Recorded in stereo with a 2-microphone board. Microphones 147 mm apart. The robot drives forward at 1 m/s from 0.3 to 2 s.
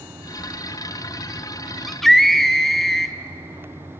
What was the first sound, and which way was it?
A scream, centre (ahead or behind).